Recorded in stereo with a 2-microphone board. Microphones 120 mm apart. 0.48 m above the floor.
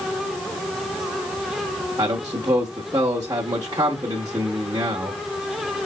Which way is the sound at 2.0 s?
30° right (ahead or behind).